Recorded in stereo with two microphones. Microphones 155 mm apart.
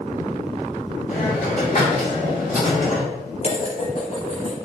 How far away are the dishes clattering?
About 1.2 m.